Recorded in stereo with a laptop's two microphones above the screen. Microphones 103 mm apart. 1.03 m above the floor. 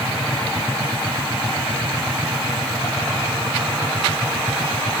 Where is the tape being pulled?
No tape being pulled in this recording.